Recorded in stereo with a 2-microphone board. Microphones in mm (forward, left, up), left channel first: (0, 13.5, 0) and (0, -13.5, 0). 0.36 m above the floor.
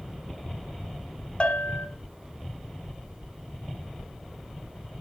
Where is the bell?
40° left (ahead or behind), 1.5 m.